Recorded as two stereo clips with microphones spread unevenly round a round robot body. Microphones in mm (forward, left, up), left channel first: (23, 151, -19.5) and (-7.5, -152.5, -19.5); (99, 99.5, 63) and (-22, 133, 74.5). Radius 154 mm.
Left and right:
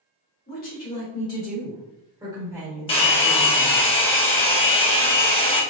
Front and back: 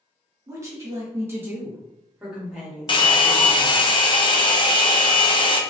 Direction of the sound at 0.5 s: 110° left.